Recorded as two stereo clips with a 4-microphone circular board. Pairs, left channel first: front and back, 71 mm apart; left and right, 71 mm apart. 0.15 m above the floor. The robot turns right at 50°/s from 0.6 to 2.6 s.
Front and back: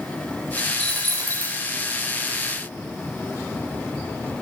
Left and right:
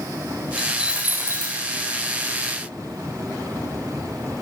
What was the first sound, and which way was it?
A dropped coin, straight behind.